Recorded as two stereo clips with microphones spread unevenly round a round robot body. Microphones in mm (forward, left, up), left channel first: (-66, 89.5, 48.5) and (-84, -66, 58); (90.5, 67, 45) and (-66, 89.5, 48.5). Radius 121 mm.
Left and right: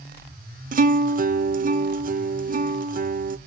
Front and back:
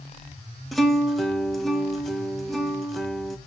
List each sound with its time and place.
0.7 s a guitar: 95° right, 0.7 m